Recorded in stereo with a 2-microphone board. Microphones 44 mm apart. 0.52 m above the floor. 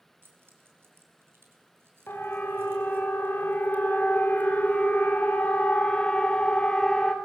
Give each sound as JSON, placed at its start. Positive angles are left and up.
{"t": 0.2, "sound": "keys jangling", "side_deg": -65, "distance_m": 3.5}
{"t": 2.1, "sound": "a siren", "side_deg": 65, "distance_m": 3.0}